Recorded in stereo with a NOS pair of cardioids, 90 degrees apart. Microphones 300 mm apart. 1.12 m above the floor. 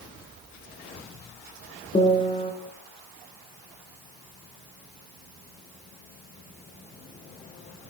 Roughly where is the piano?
Ahead.